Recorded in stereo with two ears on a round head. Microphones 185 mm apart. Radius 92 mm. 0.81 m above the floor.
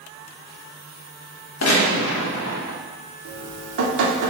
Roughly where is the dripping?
Right.